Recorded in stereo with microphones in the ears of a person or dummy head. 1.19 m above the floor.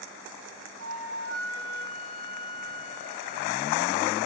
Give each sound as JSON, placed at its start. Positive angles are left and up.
{"t": 0.8, "sound": "a flute", "side_deg": -80, "distance_m": 2.5}